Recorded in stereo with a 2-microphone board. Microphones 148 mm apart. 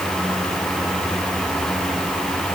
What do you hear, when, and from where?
Only background noise.